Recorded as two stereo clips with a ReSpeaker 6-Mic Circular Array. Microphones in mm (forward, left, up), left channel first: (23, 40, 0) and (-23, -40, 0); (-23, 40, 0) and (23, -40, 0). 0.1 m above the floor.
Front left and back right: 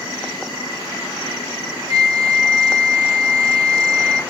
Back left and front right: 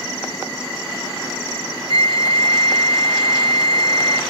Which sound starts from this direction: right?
A flute, at 1.9 s.